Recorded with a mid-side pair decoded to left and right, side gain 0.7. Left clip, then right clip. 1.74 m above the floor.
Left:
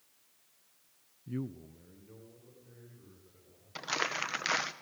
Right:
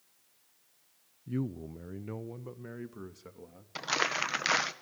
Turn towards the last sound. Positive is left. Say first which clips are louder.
# right 3 dB
turn(degrees=-15)